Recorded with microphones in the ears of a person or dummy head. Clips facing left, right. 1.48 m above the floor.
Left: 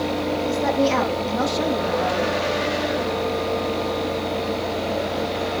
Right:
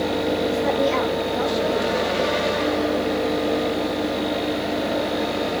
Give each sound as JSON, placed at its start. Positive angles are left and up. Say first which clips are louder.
{"t": 0.5, "sound": "a woman speaking", "louder": "left 3 dB", "side_deg": 85, "distance_m": 3.0}